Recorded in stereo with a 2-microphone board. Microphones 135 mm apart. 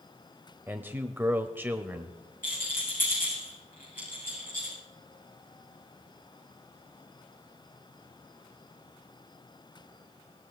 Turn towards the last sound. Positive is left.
turn(degrees=85)